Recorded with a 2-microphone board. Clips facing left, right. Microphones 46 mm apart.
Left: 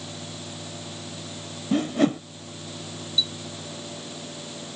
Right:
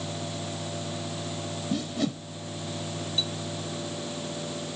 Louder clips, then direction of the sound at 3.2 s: Left 5 dB; 45° right (ahead or behind).